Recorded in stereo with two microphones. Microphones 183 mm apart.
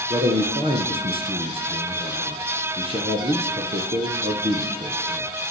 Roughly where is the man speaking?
Right.